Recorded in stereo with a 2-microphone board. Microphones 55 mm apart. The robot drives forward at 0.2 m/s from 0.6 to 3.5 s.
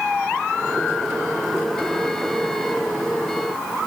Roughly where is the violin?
No violin in this recording.